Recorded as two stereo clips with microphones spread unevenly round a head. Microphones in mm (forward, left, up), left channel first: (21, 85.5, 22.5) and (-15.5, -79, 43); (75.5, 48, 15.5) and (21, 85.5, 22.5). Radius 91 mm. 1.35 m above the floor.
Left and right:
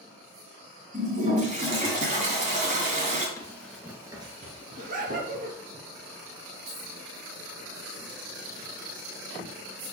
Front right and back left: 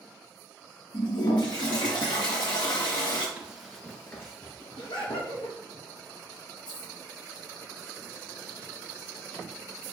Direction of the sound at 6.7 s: 50° right.